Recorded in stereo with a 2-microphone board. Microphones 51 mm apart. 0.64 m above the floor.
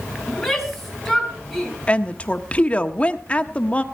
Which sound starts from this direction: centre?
A shout, at 0.3 s.